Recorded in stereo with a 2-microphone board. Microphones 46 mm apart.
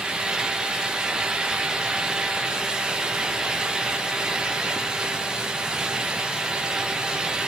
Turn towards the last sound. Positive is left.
No sound to turn to.